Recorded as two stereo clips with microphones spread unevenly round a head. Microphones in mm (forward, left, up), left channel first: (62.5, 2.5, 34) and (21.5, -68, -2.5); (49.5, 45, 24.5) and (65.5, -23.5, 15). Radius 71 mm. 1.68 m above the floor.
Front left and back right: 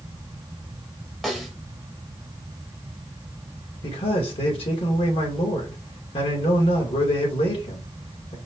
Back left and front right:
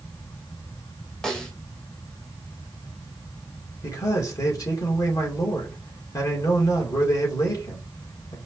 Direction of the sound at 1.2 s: 35° left.